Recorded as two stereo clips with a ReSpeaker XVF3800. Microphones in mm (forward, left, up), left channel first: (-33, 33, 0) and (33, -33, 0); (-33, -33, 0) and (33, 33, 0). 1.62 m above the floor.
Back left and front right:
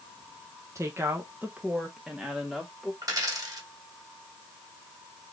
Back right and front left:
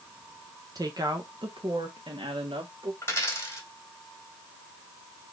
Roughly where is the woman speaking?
Ahead.